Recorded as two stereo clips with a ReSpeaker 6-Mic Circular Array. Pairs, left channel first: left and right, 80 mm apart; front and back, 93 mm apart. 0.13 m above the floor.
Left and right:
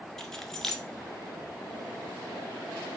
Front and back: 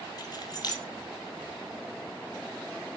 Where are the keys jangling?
10° left, 1.3 m.